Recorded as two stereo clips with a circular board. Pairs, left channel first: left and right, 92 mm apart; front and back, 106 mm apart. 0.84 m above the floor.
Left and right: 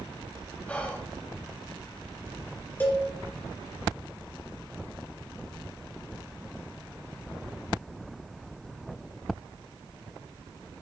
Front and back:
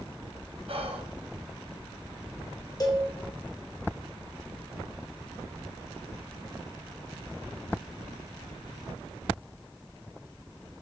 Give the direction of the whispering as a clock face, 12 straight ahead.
6 o'clock.